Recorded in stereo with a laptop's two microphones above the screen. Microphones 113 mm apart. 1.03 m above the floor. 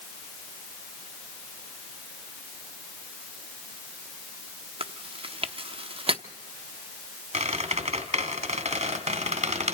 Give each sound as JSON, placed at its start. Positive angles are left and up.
{"t": 4.8, "sound": "chewing", "side_deg": -55, "distance_m": 0.8}
{"t": 7.3, "sound": "a squeak", "side_deg": -75, "distance_m": 1.9}